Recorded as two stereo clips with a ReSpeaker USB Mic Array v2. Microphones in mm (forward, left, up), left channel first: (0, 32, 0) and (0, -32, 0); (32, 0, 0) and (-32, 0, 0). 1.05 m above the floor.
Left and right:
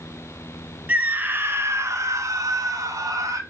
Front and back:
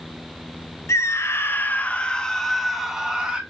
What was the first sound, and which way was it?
A scream, 25° right.